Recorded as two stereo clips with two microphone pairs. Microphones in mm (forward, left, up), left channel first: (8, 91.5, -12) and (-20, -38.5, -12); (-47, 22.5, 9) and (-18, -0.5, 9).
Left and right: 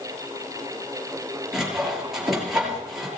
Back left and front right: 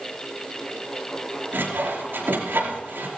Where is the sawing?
15° right, 5 m.